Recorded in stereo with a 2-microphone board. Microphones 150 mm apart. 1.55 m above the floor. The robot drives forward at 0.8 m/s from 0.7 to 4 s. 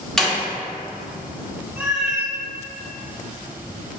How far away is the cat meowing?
About 1.5 m.